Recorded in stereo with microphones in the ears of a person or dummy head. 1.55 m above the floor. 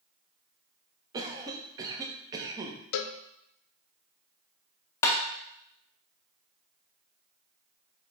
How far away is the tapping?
About 0.9 m.